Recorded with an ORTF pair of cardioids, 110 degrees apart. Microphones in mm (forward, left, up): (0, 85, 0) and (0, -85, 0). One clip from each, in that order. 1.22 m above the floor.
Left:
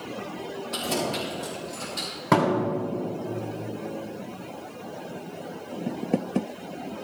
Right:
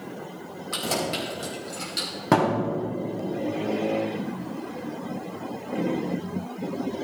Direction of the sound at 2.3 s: 25° right.